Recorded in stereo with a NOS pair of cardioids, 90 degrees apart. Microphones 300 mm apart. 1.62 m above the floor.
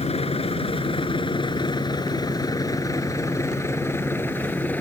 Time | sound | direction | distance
0.0 | a vehicle | 20° left | ?